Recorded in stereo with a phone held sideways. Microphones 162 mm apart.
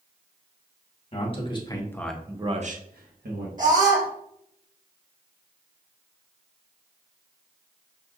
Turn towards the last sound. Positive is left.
turn(degrees=-55)  # may be behind; listen again after turning